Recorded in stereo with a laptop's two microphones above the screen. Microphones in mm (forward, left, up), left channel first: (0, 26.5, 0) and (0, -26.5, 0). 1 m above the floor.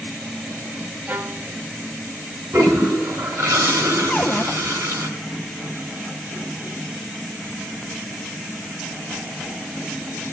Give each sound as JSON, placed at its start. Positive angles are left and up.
{"t": 1.1, "sound": "a violin", "side_deg": -35, "distance_m": 0.6}
{"t": 2.5, "sound": "a toilet flushing", "side_deg": -55, "distance_m": 2.5}
{"t": 4.1, "sound": "a cupboard door", "side_deg": 20, "distance_m": 0.6}